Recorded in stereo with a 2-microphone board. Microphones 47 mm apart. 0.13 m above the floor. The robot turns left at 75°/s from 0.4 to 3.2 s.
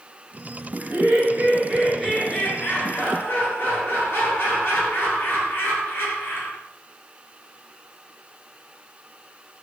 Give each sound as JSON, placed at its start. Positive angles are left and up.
{"t": 0.8, "sound": "laughter", "azimuth_deg": -90, "distance_m": 1.5}